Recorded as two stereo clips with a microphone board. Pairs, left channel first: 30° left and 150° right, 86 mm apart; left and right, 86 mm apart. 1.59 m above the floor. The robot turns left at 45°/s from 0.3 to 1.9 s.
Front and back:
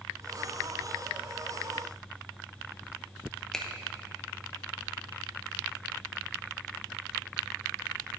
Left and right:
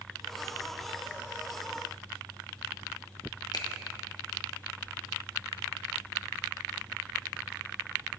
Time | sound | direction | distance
3.5 | a finger snap | 110° left | 1.0 m